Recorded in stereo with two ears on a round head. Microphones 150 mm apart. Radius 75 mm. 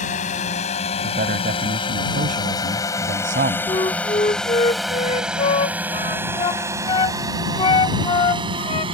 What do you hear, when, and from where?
0.0 s a drone: 45° left (ahead or behind); by 8.9 s 35° right (ahead or behind)
1.0 s a man speaking: 55° right (ahead or behind)
3.7 s a flute: 30° left (ahead or behind)